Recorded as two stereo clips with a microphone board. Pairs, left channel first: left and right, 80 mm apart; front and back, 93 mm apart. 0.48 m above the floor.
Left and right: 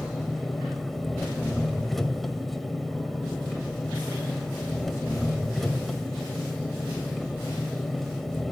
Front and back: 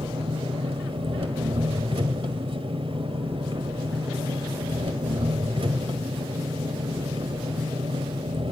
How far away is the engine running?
About 1.8 m.